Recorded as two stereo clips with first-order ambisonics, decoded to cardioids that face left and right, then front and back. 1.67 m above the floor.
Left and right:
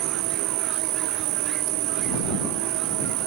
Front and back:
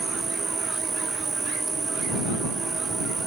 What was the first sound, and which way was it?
An insect, 105° right.